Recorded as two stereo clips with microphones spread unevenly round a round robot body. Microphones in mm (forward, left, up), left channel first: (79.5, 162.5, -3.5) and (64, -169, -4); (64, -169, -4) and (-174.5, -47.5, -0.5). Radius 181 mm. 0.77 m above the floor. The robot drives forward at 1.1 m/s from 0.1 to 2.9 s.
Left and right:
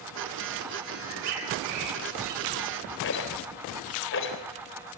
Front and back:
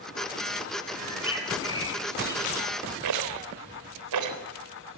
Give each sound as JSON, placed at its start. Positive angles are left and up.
{"t": 1.0, "sound": "a bird", "azimuth_deg": -95, "distance_m": 9.5}
{"t": 3.0, "sound": "a rattle", "azimuth_deg": 145, "distance_m": 3.5}